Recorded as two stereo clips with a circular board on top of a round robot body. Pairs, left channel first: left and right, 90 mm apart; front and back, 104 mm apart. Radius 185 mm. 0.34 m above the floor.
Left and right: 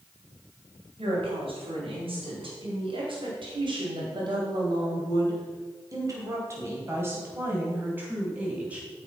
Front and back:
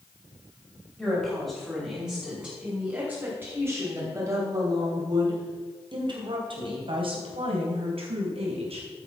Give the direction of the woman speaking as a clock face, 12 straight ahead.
3 o'clock.